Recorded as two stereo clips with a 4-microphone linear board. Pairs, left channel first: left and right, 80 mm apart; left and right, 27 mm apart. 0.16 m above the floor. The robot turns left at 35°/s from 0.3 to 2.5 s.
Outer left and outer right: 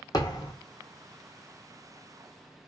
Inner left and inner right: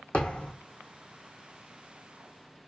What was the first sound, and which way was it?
A thud, 50° left (ahead or behind).